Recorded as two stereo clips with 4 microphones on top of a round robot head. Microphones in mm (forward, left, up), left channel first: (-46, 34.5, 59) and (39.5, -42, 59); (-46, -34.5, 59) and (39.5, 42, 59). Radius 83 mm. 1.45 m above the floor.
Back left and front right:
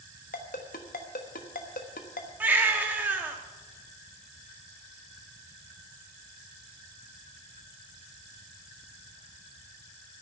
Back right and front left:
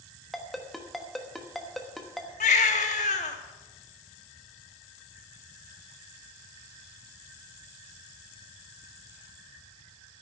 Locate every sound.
0.3 s a ringtone: 130° left, 1.1 m
2.4 s a baby crying: 115° right, 1.2 m